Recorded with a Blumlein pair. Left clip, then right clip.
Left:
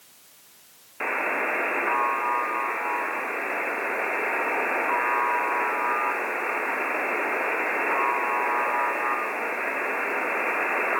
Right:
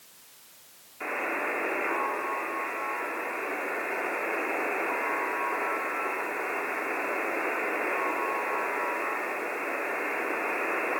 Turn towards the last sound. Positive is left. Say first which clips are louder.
# left 5 dB
turn(degrees=40)